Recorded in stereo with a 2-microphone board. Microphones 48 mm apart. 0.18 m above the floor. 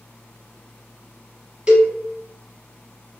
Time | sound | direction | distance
1.7 | a cowbell | 20° right (ahead or behind) | 0.5 m